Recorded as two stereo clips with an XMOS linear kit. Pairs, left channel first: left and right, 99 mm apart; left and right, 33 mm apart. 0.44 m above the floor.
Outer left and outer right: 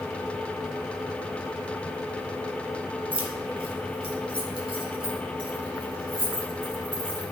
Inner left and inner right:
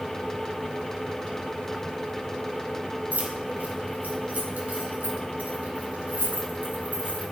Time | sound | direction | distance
3.1 | keys jangling | 70° right (ahead or behind) | 1.5 m